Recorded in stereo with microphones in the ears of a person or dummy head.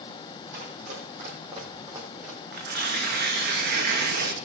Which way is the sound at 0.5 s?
40° right (ahead or behind).